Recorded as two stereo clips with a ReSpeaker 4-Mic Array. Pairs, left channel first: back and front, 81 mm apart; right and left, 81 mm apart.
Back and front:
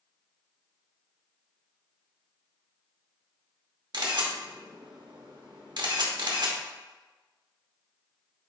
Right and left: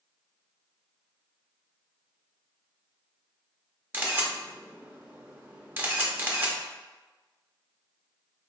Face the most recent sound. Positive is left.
turn(degrees=25)